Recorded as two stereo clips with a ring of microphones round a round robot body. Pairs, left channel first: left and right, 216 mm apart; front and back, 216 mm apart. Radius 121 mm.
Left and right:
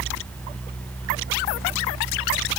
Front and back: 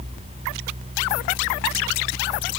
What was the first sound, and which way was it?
Only background noise.